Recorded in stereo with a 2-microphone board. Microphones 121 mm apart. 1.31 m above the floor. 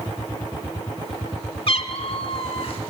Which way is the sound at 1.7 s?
50° left (ahead or behind).